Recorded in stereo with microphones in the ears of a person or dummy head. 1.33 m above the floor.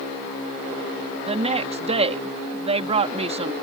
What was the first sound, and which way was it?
A woman speaking, 35° right (ahead or behind).